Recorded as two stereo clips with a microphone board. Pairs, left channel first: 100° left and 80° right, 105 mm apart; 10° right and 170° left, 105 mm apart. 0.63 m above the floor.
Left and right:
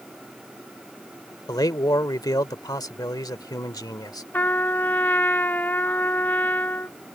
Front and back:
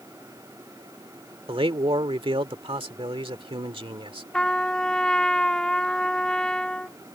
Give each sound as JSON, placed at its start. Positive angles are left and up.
{"t": 1.5, "sound": "a man speaking", "azimuth_deg": 145}
{"t": 4.3, "sound": "a trumpet", "azimuth_deg": 60}